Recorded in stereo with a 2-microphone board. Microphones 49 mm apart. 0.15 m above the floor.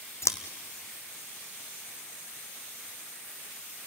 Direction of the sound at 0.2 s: 65° left (ahead or behind).